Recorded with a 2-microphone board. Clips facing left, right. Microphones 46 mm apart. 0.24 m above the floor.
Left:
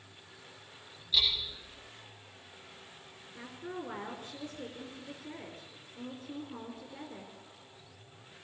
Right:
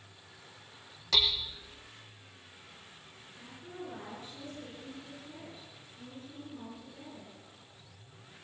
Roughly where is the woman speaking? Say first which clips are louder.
Left 4 dB; left.